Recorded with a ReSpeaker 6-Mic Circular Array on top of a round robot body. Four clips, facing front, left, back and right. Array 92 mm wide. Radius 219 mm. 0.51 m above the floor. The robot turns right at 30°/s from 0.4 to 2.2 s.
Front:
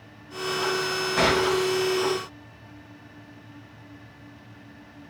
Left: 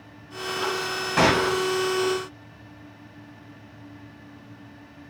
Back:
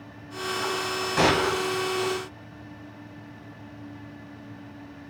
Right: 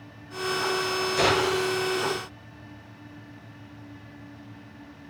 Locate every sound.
1.2 s a gunshot: 95° left, 3.5 m; by 1.6 s 110° left, 3.5 m